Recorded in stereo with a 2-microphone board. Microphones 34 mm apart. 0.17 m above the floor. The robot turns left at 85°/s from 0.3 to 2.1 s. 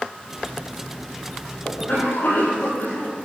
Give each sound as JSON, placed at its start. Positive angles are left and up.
{"t": 1.6, "sound": "a cough", "azimuth_deg": 130, "distance_m": 7.0}